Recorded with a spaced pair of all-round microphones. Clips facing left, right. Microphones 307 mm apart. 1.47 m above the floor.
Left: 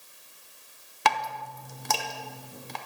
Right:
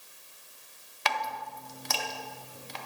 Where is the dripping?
60° left (ahead or behind), 0.6 m.